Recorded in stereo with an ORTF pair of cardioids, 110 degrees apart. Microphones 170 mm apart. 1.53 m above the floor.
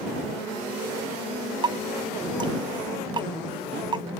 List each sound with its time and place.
1.6 s dripping: 25° right